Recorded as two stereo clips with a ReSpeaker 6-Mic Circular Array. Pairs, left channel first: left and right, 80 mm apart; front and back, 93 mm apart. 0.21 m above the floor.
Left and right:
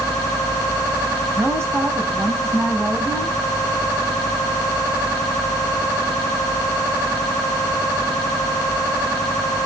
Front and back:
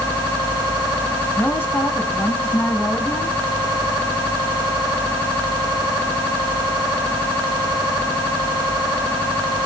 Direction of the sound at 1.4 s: 55° right.